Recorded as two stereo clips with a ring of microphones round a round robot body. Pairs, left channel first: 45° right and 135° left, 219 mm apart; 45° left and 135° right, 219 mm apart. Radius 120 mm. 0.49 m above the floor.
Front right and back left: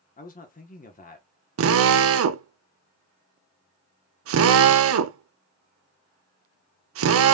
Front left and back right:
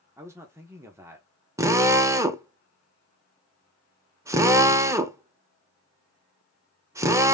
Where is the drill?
150° left, 0.7 m.